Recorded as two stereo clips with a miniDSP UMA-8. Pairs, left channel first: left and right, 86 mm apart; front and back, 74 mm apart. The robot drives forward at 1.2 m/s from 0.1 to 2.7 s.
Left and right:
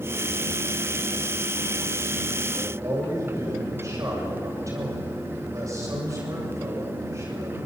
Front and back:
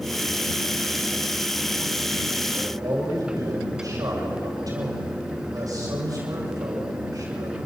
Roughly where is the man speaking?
Behind right.